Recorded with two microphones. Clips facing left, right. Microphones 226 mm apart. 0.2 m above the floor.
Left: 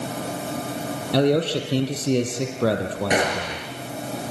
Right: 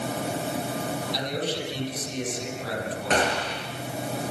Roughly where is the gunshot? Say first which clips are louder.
Even; centre.